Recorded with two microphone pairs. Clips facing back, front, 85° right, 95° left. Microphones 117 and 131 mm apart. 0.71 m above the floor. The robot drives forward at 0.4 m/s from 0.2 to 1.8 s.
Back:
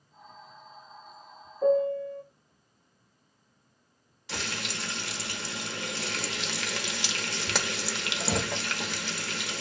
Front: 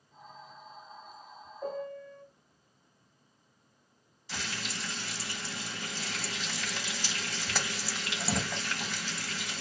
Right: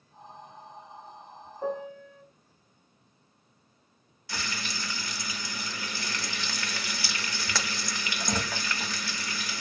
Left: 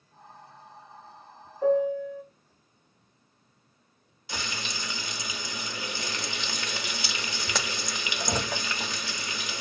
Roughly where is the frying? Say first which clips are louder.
Back 3 dB, left 1 dB; behind.